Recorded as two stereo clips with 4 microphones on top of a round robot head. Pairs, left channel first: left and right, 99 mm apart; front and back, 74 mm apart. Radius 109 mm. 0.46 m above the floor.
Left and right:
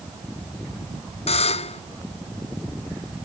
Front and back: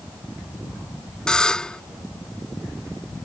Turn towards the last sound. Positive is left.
turn(degrees=80)